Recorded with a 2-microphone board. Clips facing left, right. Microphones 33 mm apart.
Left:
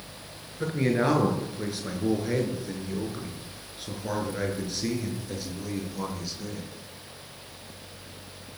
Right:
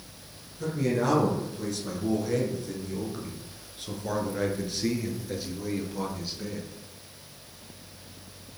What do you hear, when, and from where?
0.6 s a man speaking: 40° left (ahead or behind), 6 m; by 6.7 s 15° right (ahead or behind), 6.5 m